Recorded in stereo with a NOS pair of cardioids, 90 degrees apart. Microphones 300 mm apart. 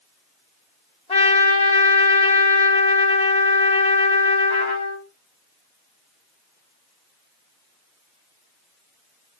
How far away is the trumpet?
About 3.5 m.